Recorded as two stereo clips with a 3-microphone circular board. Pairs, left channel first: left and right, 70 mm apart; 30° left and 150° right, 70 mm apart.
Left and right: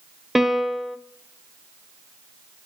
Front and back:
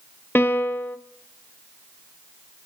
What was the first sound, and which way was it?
A piano, 5° right.